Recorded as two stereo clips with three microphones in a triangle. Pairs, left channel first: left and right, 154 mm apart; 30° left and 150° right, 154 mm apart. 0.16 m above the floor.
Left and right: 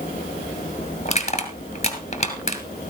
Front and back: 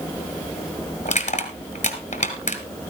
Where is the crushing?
55° left, 1.9 m.